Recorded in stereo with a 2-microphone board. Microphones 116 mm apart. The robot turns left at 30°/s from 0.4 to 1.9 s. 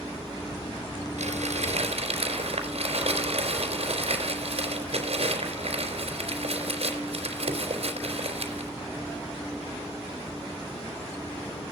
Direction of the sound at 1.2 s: 85° right.